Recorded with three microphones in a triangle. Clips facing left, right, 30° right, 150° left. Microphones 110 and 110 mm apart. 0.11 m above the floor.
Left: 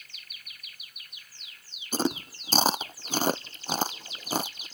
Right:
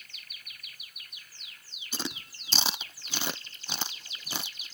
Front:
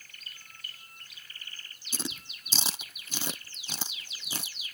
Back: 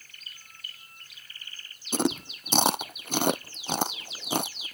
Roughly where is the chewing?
Behind left.